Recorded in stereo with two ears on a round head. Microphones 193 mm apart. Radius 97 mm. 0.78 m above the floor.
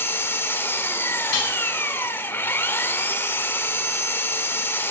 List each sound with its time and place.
0.0 s an engine running: 10° left (ahead or behind), 1.3 m
1.3 s dishes clattering: 80° left, 4.5 m